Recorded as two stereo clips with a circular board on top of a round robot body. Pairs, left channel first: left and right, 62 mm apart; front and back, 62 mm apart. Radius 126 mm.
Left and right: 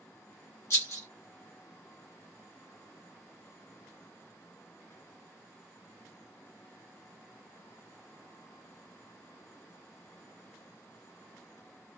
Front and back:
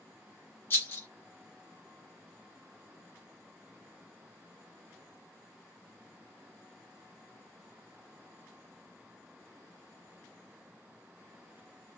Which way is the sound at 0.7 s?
55° left.